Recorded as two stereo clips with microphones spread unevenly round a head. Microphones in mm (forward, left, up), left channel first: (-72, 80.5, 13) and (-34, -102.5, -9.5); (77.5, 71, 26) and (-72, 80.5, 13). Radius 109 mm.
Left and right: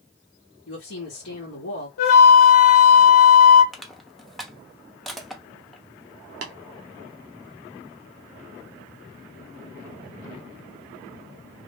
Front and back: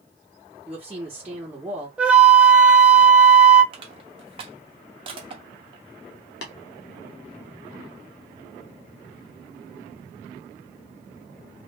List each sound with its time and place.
0.7 s a woman speaking: 95° left, 1.3 m
2.0 s a flute: 95° left, 1.0 m
3.7 s crushing: 175° left, 0.8 m
6.4 s tapping: 30° right, 0.9 m